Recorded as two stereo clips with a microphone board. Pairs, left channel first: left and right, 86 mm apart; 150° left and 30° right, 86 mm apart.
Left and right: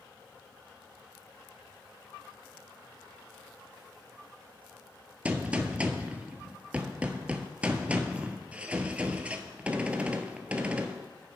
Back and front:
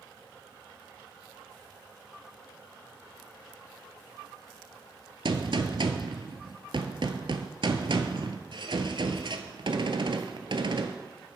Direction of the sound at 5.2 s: 15° right.